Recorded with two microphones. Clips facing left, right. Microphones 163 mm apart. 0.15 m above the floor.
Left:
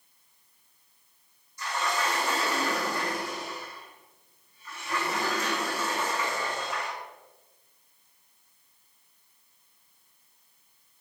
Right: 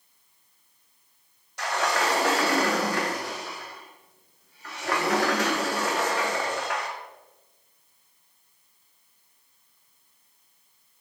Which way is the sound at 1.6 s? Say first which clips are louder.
Right 4 dB; 75° right (ahead or behind).